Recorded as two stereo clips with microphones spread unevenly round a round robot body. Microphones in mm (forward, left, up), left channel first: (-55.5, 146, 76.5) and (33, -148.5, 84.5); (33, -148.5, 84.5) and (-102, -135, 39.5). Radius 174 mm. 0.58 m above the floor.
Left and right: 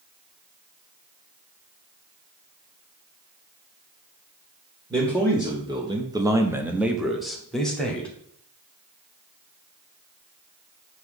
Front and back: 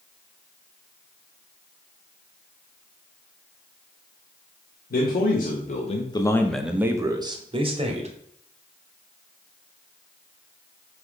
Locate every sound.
4.9 s a man speaking: straight ahead, 1.5 m; by 8.1 s 170° right, 1.9 m